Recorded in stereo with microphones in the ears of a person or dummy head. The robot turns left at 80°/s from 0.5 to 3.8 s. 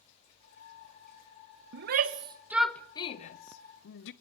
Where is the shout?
60° right (ahead or behind), 1.0 m; by 4.1 s 70° left (ahead or behind), 1.0 m.